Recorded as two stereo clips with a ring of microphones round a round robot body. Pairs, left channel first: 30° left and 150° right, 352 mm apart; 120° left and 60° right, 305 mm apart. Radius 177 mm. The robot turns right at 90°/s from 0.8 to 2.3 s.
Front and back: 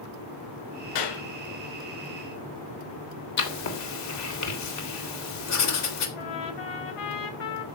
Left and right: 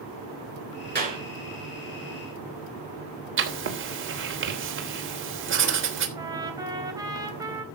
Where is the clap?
5° right, 6 m; by 1.2 s 20° left, 6 m.